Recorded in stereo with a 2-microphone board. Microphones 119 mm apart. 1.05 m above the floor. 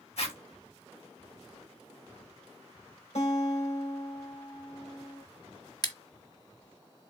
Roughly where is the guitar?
Left.